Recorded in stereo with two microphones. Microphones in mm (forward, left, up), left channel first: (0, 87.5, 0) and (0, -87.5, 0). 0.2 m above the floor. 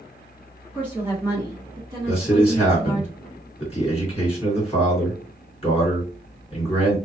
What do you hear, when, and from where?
0.7 s a woman speaking: centre (ahead or behind), 1.8 m; by 3.1 s 35° right (ahead or behind), 1.9 m
2.1 s a man speaking: 35° left (ahead or behind), 1.9 m